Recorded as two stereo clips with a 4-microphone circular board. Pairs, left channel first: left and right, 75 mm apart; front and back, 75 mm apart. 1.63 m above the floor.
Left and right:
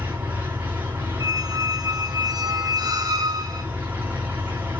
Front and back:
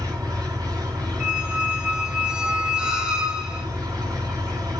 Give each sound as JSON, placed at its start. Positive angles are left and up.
{"t": 0.0, "sound": "an engine running", "azimuth_deg": -155, "distance_m": 4.0}
{"t": 1.2, "sound": "a squeak", "azimuth_deg": -105, "distance_m": 1.3}